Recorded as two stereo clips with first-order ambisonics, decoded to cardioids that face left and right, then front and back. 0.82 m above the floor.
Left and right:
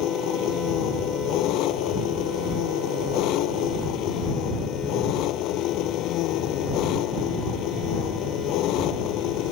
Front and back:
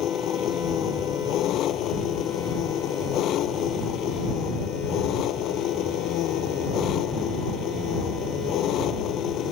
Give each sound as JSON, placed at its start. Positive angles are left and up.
{"t": 0.0, "sound": "an engine running", "azimuth_deg": 50}